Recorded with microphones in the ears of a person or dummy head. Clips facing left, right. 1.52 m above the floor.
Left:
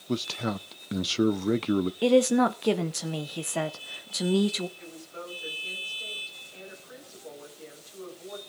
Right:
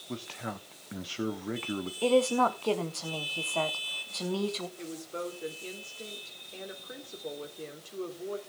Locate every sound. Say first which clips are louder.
0.1 s a man speaking: left 9 dB; 55° left (ahead or behind), 0.5 m
2.0 s a woman speaking: left 3 dB; 20° left (ahead or behind), 0.9 m
4.8 s a woman speaking: right 5 dB; 45° right (ahead or behind), 4 m